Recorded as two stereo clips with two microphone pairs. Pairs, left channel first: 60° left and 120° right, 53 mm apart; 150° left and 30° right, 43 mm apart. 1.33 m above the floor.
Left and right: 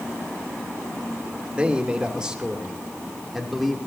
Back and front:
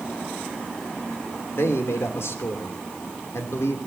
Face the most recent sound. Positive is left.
turn(degrees=150)